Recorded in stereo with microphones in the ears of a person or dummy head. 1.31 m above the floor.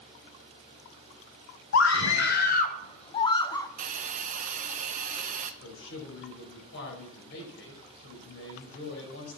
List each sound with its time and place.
1.7 s a scream: 80° left, 0.8 m; by 3.7 s 20° left (ahead or behind), 1.2 m
3.8 s a hiss: 50° right (ahead or behind), 0.8 m
5.6 s a man speaking: 75° left (ahead or behind), 5.5 m